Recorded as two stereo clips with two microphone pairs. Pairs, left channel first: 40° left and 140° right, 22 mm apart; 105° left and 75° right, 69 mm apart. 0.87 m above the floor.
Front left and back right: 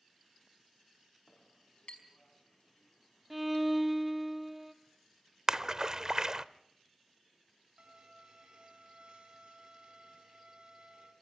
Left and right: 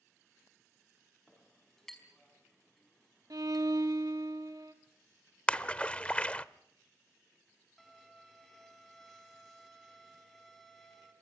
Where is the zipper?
I don't hear a zipper.